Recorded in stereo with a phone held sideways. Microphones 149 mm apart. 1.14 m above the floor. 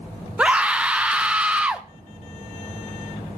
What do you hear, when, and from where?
0.4 s a scream: 10° right (ahead or behind), 0.7 m